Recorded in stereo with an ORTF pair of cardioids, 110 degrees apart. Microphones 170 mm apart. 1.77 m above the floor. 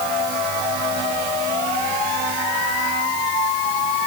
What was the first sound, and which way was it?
Only background noise.